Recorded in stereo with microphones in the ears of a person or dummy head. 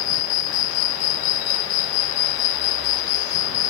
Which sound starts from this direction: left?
An insect, at 0.0 s.